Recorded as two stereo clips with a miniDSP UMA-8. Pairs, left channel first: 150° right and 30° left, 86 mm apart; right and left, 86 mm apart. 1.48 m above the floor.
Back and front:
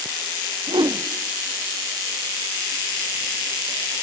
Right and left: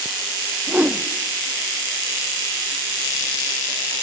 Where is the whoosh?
20° left, 0.9 m.